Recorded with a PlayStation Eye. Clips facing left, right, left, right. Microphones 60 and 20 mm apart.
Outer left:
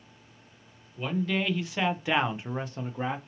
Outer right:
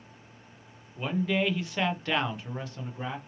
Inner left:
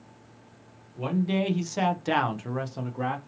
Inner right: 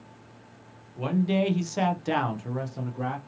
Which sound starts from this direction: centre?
A man speaking, at 1.0 s.